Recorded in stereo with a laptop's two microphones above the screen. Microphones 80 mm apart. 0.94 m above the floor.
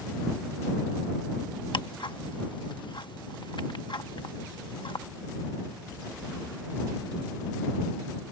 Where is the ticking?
75° left (ahead or behind).